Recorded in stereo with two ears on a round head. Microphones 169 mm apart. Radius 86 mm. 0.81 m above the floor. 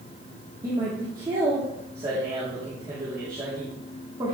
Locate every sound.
0.6 s a man speaking: 20° right (ahead or behind), 2 m